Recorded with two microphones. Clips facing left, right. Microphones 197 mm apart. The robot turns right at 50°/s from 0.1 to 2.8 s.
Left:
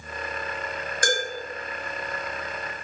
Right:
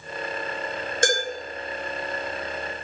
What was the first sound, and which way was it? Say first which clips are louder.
Dishes clattering: right 3 dB; 25° right (ahead or behind).